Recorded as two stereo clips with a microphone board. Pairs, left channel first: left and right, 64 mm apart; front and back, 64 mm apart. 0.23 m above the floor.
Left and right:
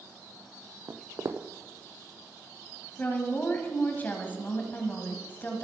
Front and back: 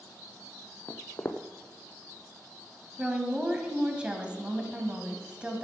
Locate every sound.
0.9 s footsteps: 50° right, 0.6 m
3.0 s a woman speaking: 120° left, 1.5 m